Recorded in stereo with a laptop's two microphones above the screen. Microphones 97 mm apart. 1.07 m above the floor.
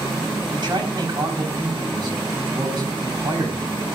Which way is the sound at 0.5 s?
55° right (ahead or behind).